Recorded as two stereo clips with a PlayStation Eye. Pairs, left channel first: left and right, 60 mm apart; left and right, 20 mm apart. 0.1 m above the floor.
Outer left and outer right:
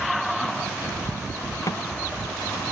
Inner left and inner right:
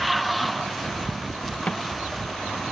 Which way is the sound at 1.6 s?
70° left (ahead or behind).